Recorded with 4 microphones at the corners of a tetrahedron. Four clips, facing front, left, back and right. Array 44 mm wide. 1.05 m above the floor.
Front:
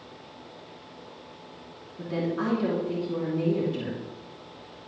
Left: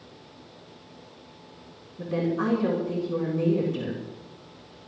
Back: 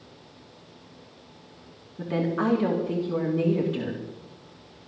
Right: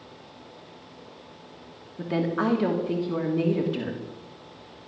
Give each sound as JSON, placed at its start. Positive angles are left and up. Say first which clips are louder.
{"t": 2.0, "sound": "a woman speaking", "louder": "right 1 dB, back 3 dB", "azimuth_deg": -110, "distance_m": 2.5}